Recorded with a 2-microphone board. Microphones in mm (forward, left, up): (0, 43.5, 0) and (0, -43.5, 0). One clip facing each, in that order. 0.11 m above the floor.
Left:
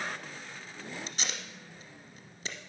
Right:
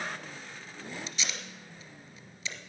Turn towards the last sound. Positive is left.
turn(degrees=45)  # may be behind; listen again after turning